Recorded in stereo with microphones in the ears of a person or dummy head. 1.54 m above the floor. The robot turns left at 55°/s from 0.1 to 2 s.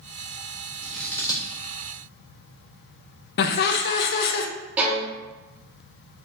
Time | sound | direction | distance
0.8 | scissors | 10° right (ahead or behind) | 0.8 m
3.4 | laughter | 55° left (ahead or behind) | 0.6 m
4.8 | a violin | 5° right (ahead or behind) | 1.2 m